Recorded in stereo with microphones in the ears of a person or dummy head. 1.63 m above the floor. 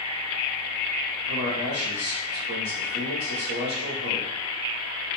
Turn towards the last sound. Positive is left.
turn(degrees=-45)  # may be behind; listen again after turning